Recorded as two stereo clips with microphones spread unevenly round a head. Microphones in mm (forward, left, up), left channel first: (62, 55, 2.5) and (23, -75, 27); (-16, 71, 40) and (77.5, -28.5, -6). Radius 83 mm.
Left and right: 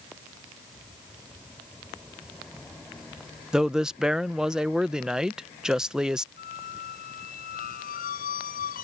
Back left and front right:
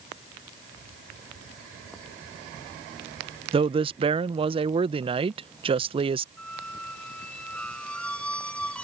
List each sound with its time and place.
3.5 s a man speaking: 15° right
6.4 s a squeak: 55° left